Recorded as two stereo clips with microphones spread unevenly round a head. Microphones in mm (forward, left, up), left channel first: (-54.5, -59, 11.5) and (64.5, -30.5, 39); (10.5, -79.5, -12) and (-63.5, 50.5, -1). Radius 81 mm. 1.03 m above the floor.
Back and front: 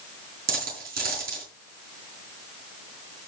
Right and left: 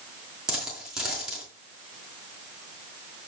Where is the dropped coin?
35° left, 4 m.